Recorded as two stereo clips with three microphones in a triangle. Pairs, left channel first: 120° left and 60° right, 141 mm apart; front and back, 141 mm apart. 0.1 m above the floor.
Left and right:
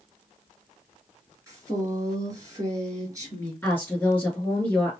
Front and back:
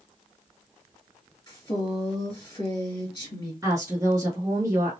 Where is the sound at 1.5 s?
10° right, 1.7 m.